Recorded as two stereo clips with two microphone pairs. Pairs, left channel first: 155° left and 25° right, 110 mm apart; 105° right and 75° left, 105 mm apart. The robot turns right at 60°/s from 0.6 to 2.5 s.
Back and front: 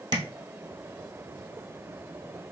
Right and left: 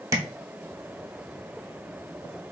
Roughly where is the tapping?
Ahead.